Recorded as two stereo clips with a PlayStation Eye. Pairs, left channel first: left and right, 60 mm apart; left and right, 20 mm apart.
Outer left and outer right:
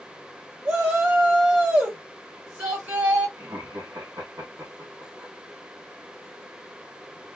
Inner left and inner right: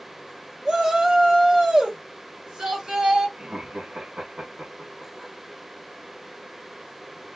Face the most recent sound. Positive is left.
turn(degrees=-75)  # may be behind; listen again after turning